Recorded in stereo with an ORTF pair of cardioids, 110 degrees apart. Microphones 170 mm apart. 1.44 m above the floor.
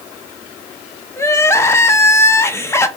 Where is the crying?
15° left, 0.6 m.